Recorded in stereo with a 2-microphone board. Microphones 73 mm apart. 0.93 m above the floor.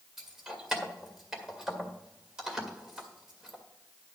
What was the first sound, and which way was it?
Keys jangling, 5° right (ahead or behind).